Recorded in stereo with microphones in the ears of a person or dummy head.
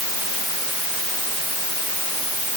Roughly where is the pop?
No pop in this recording.